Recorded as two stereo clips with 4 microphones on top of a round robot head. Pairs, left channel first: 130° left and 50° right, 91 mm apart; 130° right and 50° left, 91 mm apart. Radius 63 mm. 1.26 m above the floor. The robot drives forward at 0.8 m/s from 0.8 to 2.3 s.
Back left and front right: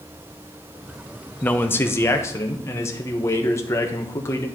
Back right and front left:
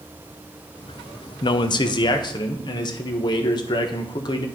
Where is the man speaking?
155° right, 0.7 m; by 4.5 s 170° right, 1.3 m.